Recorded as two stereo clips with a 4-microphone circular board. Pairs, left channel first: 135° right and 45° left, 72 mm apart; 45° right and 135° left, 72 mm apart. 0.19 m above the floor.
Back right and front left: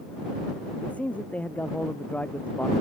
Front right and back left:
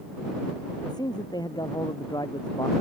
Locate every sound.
0.8 s a man speaking: 65° right